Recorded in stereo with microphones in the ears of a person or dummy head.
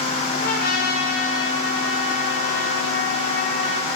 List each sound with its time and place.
0.4 s a trumpet: 55° left (ahead or behind), 1.9 m